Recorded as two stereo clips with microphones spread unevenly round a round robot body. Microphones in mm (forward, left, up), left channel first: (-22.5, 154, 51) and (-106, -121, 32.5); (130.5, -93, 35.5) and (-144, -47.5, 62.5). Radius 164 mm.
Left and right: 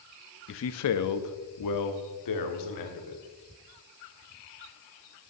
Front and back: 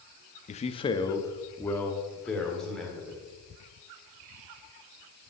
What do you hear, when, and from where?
0.5 s a man speaking: 35° left, 0.6 m; by 3.2 s 80° left, 2 m